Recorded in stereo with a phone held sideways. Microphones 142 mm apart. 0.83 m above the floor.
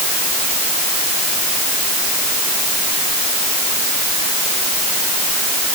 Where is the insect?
I don't hear an insect.